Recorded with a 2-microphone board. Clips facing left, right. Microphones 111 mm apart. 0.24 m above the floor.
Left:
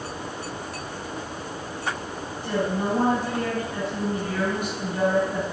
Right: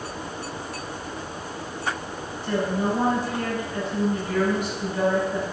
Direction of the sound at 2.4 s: 50° left (ahead or behind).